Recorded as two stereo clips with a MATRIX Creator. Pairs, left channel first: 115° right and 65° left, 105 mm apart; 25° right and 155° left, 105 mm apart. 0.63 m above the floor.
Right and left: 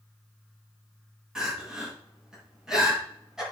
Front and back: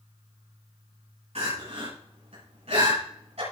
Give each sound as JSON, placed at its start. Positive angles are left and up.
{"t": 1.4, "sound": "crying", "azimuth_deg": 155, "distance_m": 6.0}